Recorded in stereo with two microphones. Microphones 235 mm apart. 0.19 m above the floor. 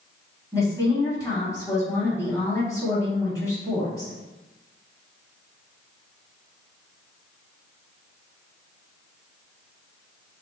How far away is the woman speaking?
About 1.2 m.